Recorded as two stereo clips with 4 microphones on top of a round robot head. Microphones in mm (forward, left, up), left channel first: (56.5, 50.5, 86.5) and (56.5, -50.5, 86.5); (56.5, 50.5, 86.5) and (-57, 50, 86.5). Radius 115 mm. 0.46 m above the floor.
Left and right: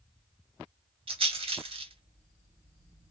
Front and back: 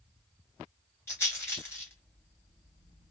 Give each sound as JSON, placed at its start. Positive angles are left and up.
{"t": 1.1, "sound": "a rattle", "azimuth_deg": -70, "distance_m": 2.5}